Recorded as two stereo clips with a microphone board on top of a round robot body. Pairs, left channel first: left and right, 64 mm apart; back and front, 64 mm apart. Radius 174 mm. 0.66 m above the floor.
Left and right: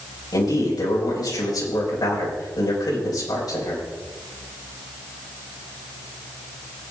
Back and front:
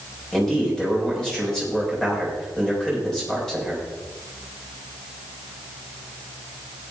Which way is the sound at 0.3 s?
100° left.